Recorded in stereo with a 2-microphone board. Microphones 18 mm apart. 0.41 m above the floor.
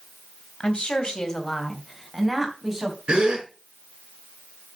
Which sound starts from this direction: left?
A woman speaking, at 0.6 s.